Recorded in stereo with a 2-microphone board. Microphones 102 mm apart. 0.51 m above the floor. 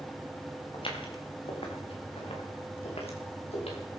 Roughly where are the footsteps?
Left.